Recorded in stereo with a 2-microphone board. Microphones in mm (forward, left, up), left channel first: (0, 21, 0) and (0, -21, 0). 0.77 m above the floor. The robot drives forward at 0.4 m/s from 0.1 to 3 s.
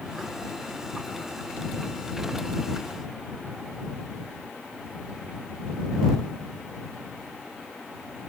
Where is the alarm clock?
No alarm clock in this recording.